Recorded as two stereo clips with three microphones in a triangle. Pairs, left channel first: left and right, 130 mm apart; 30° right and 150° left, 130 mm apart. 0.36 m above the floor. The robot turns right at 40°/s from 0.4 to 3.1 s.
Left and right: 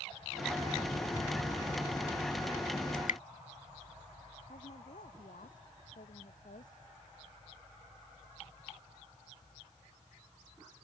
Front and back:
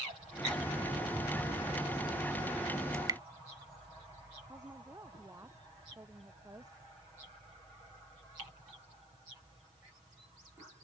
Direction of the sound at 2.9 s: 85° left.